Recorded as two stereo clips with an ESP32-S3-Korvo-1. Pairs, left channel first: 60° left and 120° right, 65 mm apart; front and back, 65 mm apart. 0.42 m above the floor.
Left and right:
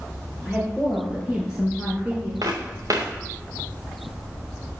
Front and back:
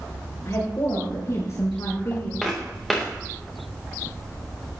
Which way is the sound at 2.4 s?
90° right.